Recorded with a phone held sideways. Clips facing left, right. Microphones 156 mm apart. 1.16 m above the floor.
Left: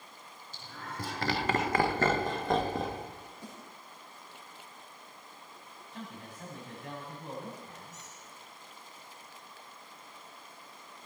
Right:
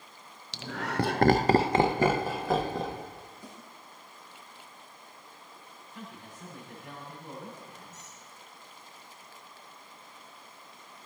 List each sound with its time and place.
0.5 s laughter: 80° right, 0.7 m; by 3.0 s 5° left (ahead or behind), 1.4 m
3.4 s a snare drum: 85° left, 8 m
5.9 s a man speaking: 80° left, 7 m
7.9 s a squeak: 85° left, 6 m